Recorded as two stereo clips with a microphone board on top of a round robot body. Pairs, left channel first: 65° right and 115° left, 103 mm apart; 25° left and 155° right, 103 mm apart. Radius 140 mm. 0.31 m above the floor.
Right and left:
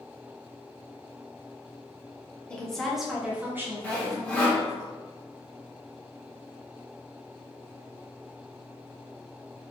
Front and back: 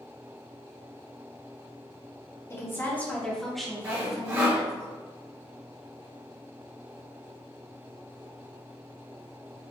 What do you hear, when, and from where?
2.5 s a woman speaking: straight ahead, 1.0 m; by 4.8 s 140° left, 1.2 m
3.8 s sawing: 135° right, 1.2 m